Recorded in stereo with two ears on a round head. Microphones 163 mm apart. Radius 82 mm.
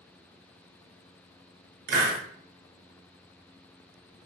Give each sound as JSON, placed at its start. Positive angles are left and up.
{"t": 1.9, "sound": "a hiss", "side_deg": -55, "distance_m": 0.7}